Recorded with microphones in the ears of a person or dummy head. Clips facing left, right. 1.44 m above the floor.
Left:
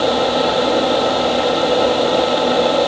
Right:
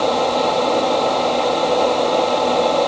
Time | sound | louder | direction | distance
0.0 | a fan | left 2 dB | 5° left (ahead or behind) | ?